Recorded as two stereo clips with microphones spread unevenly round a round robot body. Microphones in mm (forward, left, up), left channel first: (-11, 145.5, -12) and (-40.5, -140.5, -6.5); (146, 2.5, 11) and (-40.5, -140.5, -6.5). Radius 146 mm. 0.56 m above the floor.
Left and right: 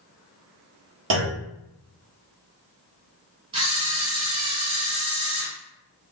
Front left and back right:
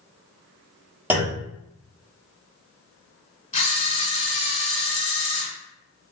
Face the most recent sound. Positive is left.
turn(degrees=-20)